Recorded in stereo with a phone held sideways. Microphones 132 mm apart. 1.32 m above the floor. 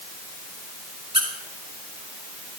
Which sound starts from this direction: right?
A squeak, at 1.1 s.